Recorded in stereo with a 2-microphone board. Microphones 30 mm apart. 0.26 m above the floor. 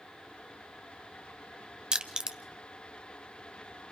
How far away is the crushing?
About 1.0 m.